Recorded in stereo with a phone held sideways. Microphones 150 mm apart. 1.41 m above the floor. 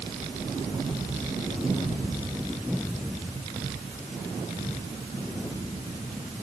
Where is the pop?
No pop in this recording.